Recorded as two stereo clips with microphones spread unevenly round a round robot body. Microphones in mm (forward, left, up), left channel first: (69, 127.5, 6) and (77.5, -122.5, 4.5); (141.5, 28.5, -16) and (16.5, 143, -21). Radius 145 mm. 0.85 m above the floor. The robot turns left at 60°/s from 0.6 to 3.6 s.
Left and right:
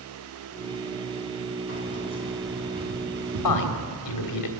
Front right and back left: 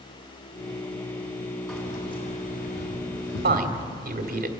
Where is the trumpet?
I don't hear a trumpet.